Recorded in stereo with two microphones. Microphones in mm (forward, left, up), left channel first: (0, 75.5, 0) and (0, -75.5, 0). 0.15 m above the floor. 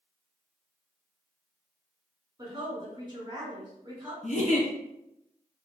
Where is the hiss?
No hiss in this recording.